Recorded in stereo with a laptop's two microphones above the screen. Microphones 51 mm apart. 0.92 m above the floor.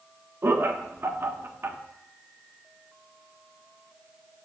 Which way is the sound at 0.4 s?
50° right (ahead or behind).